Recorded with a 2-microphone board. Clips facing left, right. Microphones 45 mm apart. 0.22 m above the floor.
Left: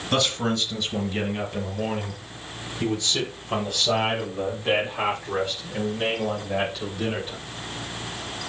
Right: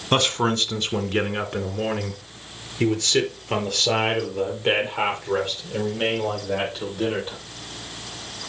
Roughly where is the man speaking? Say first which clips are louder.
Right 3 dB; right.